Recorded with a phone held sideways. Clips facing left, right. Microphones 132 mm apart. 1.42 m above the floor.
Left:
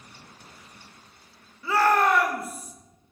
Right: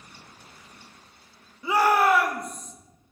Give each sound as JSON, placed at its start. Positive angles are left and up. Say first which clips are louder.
{"t": 1.6, "sound": "a shout", "louder": "right 1 dB", "side_deg": -20, "distance_m": 2.0}